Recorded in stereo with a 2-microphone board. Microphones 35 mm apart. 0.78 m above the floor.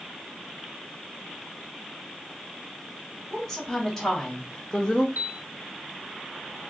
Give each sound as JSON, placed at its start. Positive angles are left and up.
{"t": 3.3, "sound": "a woman speaking", "side_deg": 0, "distance_m": 2.5}
{"t": 5.2, "sound": "a piano", "side_deg": -65, "distance_m": 0.6}